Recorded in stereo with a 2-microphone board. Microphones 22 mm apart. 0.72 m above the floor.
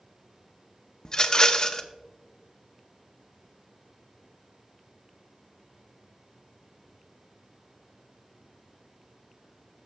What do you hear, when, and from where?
1.1 s a rattle: 35° left (ahead or behind), 0.6 m